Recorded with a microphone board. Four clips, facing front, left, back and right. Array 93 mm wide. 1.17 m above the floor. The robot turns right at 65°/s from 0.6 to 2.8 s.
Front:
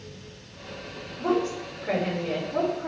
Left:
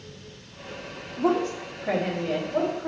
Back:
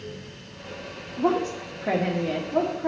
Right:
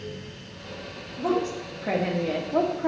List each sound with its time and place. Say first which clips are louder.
1.2 s a woman speaking: left 2 dB, back 2 dB; 160° left, 1.4 m; by 2.9 s 95° right, 1.4 m